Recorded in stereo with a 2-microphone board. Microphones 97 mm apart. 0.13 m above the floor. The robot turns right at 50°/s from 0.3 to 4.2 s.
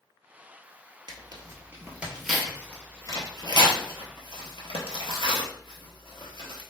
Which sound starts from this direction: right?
Tearing paper, at 1.1 s.